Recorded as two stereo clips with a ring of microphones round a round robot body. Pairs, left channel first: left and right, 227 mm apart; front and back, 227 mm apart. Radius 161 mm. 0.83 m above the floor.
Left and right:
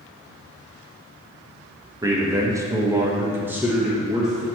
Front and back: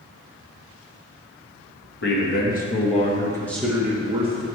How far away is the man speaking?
About 1.4 m.